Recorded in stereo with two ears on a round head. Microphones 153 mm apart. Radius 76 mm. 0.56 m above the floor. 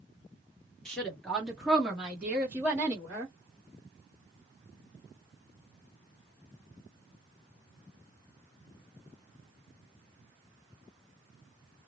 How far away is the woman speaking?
About 1.5 m.